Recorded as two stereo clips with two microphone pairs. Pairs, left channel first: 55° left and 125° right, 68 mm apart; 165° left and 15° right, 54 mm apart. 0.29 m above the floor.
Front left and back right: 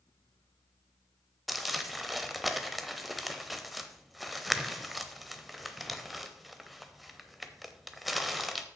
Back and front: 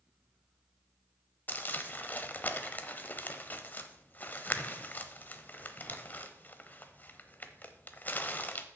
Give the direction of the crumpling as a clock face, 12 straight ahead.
7 o'clock.